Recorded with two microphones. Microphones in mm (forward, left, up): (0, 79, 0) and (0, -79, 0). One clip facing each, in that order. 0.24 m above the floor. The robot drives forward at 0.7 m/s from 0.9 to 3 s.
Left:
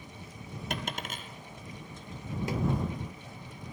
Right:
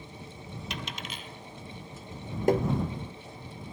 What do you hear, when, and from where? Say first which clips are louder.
0.7 s a dropped coin: left 4 dB; 50° left (ahead or behind), 1.8 m; by 1.3 s 45° left (ahead or behind), 2 m
2.5 s tapping: right 9 dB; 55° right (ahead or behind), 0.9 m; by 2.7 s 50° right (ahead or behind), 1.0 m